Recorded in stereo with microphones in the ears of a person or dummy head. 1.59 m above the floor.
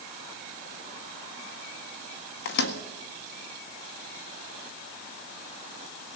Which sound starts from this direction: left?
A microwave, at 2.5 s.